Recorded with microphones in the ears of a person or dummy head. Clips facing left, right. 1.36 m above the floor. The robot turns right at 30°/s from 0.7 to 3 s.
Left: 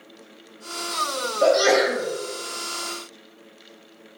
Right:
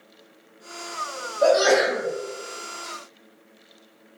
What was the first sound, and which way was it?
A sneeze, 30° left (ahead or behind).